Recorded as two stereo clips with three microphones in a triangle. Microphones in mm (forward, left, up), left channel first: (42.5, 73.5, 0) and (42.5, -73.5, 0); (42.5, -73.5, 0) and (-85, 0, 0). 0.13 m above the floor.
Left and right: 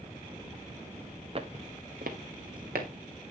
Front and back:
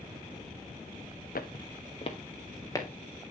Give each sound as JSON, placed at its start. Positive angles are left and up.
{"t": 1.4, "sound": "footsteps", "azimuth_deg": -40, "distance_m": 1.2}